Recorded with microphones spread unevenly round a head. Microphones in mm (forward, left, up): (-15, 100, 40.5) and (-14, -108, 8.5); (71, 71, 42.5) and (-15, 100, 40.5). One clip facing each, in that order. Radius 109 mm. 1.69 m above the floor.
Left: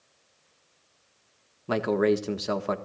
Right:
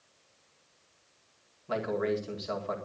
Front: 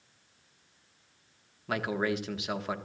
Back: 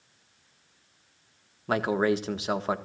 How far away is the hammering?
No hammering in this recording.